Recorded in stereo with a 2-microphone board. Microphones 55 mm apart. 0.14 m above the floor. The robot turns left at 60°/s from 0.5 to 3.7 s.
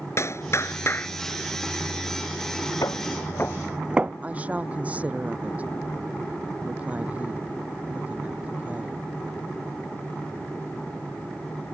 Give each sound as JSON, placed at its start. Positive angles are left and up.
{"t": 0.2, "sound": "a clap", "azimuth_deg": 80}
{"t": 2.8, "sound": "footsteps", "side_deg": 80}
{"t": 4.2, "sound": "a woman speaking", "side_deg": -25}